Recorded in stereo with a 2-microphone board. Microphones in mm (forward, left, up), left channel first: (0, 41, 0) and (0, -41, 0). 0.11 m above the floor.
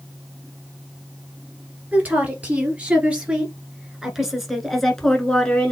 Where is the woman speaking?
20° right (ahead or behind), 2 m; by 5.7 s 15° left (ahead or behind), 1.3 m.